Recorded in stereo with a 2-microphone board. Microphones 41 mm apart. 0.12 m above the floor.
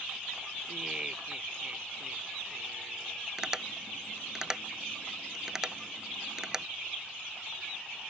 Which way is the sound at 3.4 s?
15° right (ahead or behind).